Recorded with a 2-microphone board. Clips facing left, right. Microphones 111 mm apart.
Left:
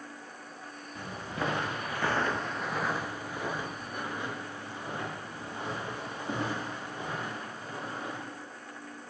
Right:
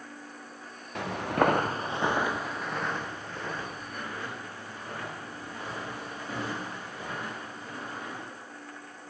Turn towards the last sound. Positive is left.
turn(degrees=25)  # may be behind; listen again after turning